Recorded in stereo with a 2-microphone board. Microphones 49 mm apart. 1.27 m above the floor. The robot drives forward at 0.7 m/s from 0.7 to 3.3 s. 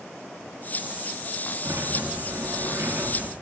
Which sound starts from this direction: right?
A sliding door, at 1.6 s.